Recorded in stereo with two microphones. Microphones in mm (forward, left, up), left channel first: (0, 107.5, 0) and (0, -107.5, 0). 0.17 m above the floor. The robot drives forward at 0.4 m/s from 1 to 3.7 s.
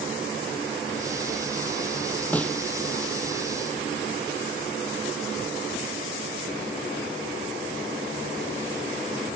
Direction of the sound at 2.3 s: 5° left (ahead or behind).